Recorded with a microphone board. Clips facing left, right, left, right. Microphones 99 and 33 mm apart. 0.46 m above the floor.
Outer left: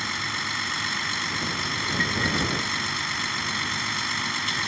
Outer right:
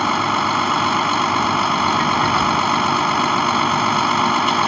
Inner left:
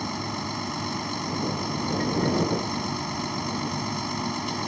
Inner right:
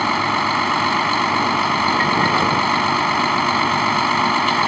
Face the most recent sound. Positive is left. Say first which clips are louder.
# outer right 15 dB, inner right 13 dB
turn(degrees=-75)  # may be behind; listen again after turning